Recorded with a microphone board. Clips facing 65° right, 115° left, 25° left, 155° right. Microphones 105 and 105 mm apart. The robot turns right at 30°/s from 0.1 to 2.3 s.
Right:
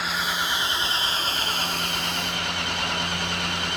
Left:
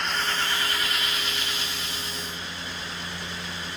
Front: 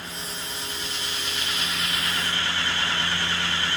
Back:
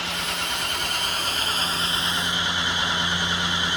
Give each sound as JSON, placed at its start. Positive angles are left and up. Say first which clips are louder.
{"t": 0.0, "sound": "an engine running", "louder": "right 1 dB, back 7 dB", "azimuth_deg": -150}